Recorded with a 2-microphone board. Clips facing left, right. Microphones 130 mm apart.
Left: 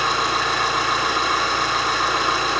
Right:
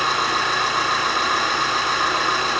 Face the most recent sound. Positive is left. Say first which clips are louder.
# even
turn(degrees=45)  # may be behind; listen again after turning